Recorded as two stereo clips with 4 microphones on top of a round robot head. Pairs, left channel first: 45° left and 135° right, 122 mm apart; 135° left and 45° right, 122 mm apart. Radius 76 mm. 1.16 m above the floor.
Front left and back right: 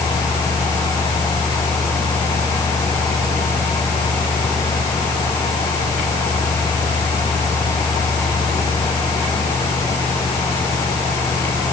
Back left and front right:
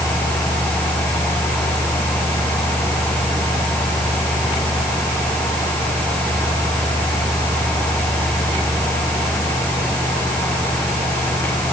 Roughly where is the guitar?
I don't hear a guitar.